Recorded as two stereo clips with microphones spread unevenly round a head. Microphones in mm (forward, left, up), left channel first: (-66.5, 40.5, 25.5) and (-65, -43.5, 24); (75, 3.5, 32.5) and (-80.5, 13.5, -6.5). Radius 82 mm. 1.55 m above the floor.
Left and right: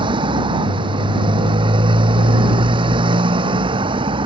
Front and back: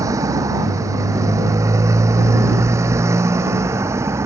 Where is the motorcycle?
110° right.